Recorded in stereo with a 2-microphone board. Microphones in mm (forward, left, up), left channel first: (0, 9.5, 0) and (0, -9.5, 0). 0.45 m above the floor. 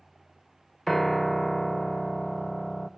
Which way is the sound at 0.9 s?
10° left (ahead or behind).